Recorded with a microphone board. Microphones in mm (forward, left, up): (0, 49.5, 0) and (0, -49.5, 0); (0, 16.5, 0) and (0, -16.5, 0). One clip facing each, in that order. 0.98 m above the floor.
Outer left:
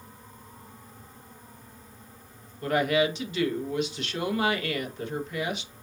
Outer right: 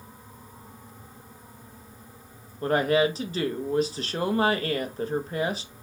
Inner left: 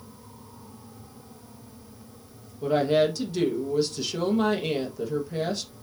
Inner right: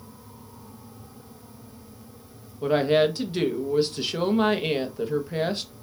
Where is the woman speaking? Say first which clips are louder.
Outer right 2 dB, inner right 1 dB; 35° right (ahead or behind), 0.9 m.